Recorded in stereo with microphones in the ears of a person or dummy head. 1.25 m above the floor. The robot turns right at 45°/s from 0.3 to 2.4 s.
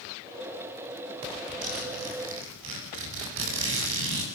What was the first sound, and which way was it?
A zipper, 105° right.